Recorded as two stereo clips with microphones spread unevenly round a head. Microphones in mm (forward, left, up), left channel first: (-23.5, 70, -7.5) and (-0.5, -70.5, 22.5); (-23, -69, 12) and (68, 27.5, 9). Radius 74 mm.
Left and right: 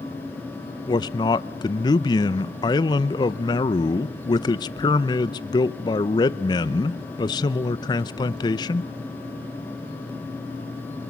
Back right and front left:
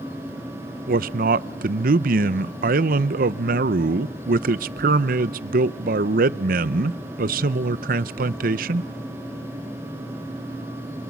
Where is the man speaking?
35° left, 0.6 m.